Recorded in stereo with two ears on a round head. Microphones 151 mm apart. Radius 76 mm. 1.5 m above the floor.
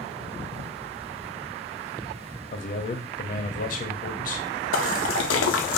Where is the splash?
85° left, 0.6 m.